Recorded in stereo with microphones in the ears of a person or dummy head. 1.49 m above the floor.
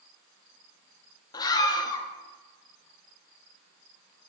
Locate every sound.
1.3 s a scream: 20° left (ahead or behind), 0.8 m